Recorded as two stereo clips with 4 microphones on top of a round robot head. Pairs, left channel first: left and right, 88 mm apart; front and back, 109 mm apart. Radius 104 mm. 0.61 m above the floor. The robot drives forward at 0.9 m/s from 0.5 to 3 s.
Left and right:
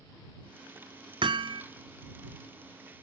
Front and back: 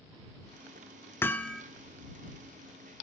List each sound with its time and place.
1.2 s hammering: 70° right, 1.2 m; by 1.6 s 90° right, 1.2 m